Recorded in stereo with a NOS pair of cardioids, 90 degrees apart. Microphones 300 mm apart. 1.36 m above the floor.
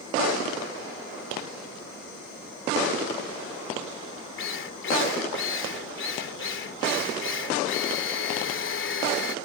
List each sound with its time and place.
4.4 s a drill: 40° left